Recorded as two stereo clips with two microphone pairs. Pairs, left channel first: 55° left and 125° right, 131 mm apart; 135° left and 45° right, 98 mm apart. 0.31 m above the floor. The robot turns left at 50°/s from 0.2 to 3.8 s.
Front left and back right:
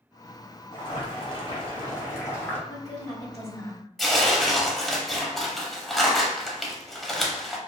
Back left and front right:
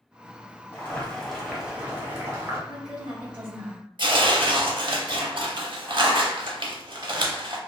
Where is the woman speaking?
40° left, 1.8 m; by 3.8 s 15° right, 1.8 m.